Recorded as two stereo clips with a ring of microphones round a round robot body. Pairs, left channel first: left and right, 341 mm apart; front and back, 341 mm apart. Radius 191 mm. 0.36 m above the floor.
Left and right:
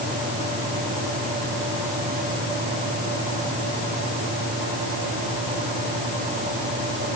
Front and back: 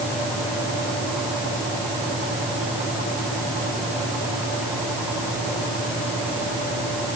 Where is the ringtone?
I don't hear a ringtone.